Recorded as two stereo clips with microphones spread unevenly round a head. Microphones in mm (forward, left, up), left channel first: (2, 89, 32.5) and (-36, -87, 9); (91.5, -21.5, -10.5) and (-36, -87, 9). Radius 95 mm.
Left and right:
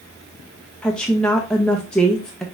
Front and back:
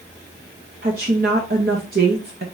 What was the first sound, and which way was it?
A woman speaking, 165° left.